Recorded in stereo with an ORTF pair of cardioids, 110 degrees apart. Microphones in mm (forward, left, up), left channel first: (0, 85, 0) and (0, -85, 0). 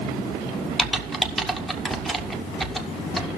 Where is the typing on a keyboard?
Straight ahead, 0.8 m.